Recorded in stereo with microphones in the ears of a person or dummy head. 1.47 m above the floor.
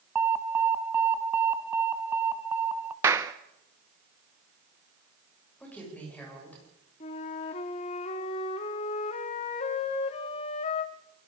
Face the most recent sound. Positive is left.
turn(degrees=25)  # may be behind; listen again after turning